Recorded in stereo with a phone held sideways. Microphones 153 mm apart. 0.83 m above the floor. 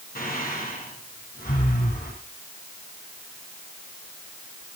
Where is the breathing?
75° left (ahead or behind), 9.5 m.